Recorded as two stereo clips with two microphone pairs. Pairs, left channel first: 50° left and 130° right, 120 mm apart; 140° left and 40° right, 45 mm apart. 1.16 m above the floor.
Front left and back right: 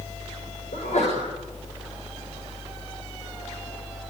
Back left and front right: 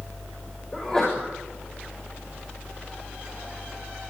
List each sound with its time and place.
0.7 s a sneeze: 60° left, 6 m